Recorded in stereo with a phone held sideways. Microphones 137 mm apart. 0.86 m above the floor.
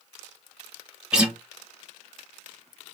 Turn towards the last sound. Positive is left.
turn(degrees=-5)  # may be behind; listen again after turning